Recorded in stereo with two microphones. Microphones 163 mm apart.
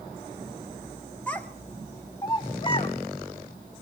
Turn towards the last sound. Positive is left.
turn(degrees=35)  # may be behind; listen again after turning